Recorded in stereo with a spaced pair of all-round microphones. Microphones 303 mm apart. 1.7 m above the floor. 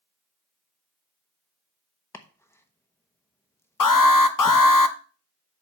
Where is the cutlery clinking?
I don't hear cutlery clinking.